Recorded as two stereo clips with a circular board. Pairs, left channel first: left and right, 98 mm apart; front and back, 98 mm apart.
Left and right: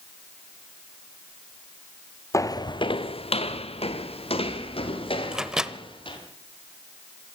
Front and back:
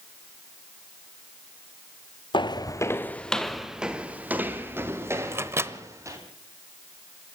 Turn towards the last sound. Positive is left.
turn(degrees=-165)